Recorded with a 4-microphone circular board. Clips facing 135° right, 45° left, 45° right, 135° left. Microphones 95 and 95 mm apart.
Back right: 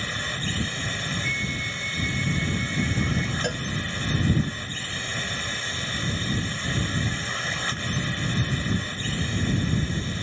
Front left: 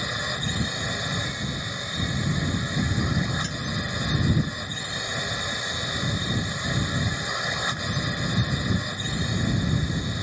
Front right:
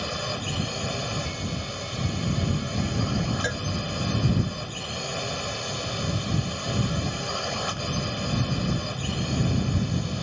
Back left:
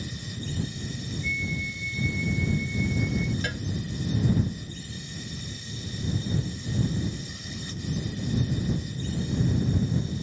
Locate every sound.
0.0 s a drone: 30° right
1.2 s a flute: straight ahead
3.4 s a cowbell: 110° right